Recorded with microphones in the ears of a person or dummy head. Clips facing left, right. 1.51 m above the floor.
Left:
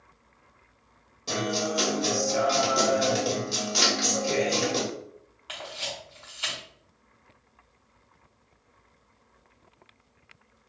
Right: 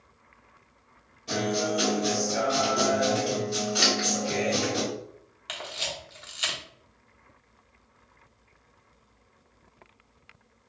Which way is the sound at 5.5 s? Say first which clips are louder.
Right 1 dB; 25° right (ahead or behind).